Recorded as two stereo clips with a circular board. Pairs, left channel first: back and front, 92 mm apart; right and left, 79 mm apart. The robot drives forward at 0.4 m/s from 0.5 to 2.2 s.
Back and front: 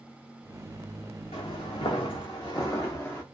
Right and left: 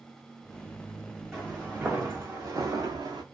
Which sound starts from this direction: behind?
Footsteps, at 1.3 s.